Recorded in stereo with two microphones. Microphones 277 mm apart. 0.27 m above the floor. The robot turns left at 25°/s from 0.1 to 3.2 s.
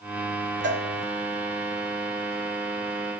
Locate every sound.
0.6 s a cowbell: 40° right (ahead or behind), 1.0 m